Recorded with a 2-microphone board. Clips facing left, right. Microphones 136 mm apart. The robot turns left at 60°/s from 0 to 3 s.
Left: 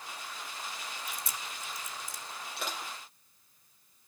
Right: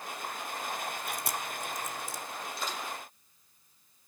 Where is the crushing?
75° left (ahead or behind), 7 m; by 2.9 s 55° left (ahead or behind), 7 m.